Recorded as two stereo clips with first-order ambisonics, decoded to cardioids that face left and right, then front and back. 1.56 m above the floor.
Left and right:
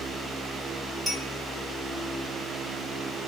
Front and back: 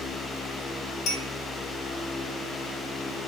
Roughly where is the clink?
Ahead right.